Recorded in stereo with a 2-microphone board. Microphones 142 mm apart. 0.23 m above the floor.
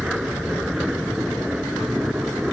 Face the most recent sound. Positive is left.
turn(degrees=-5)  # may be behind; listen again after turning